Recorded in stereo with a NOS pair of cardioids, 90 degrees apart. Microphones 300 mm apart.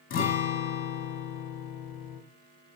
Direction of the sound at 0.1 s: 45° left.